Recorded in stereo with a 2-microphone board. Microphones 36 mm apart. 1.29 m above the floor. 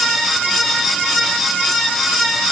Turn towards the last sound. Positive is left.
No sound to turn to.